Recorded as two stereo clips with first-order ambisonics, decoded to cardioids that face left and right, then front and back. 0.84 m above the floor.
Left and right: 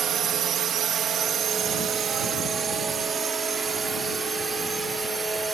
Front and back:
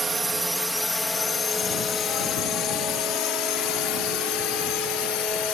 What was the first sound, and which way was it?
A drone, 120° right.